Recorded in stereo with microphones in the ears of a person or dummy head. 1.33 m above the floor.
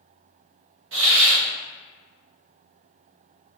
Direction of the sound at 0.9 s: 55° right (ahead or behind).